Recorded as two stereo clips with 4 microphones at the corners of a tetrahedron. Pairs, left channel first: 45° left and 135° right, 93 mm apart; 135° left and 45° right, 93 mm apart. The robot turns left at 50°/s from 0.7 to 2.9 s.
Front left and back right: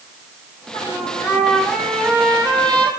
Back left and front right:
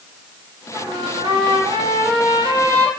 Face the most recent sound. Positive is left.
turn(degrees=-110)